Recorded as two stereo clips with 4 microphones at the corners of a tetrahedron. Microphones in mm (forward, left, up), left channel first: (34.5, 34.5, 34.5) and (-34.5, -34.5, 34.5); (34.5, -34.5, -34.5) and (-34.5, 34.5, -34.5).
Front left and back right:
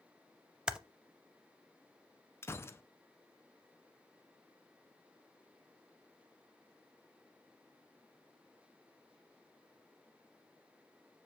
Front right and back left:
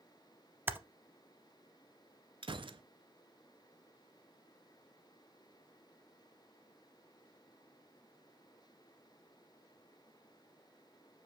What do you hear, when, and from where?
0.7 s typing on a keyboard: 155° left, 0.5 m
2.4 s a gunshot: 105° left, 0.5 m